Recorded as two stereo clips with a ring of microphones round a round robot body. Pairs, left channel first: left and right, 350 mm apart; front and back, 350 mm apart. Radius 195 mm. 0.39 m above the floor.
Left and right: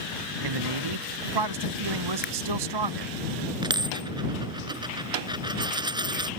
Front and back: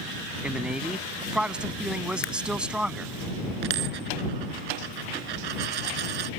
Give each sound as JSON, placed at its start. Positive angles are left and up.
{"t": 0.4, "sound": "a man speaking", "azimuth_deg": -95}
{"t": 2.2, "sound": "a camera shutter", "azimuth_deg": 20}
{"t": 3.6, "sound": "a dropped coin", "azimuth_deg": -170}